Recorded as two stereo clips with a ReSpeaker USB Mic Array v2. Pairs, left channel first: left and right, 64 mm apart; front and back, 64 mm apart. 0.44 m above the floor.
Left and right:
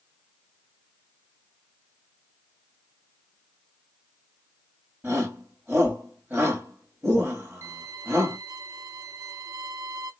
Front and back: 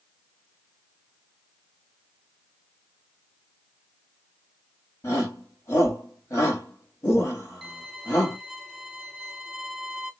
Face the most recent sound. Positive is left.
turn(degrees=-90)